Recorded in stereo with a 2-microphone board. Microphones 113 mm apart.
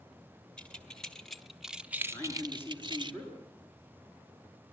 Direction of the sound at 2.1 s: 20° left (ahead or behind).